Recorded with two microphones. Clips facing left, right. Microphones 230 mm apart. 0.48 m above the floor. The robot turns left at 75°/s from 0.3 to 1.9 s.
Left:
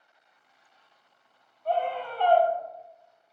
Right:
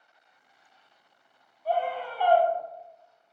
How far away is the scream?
About 1.2 m.